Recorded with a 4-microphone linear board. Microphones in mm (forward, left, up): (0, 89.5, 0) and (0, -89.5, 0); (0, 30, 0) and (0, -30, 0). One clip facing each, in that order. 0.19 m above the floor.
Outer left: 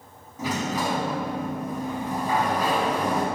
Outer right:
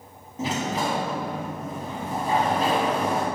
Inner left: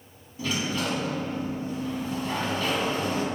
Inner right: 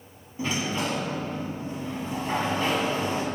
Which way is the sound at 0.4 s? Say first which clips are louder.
Even, inner right 1 dB; 25° right (ahead or behind).